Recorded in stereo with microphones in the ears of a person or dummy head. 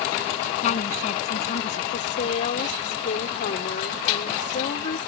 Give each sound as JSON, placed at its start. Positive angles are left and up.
{"t": 0.6, "sound": "a woman speaking", "side_deg": 45}
{"t": 1.9, "sound": "a woman speaking", "side_deg": 40}